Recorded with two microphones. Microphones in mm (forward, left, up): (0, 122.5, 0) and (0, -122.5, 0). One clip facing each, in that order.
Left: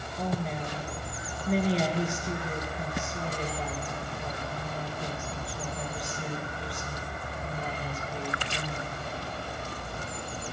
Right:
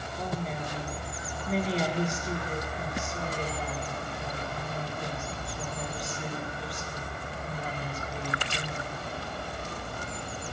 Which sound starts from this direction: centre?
A woman speaking, at 0.2 s.